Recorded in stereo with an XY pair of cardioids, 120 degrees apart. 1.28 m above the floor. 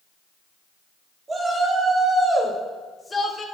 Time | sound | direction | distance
1.3 | a shout | 25° right | 2.5 m